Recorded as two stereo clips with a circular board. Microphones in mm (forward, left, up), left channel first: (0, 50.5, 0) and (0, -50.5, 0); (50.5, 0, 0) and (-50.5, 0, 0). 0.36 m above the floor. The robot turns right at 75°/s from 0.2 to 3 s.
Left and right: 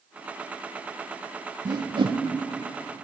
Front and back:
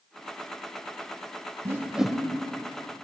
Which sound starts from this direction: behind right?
A whoosh, at 1.6 s.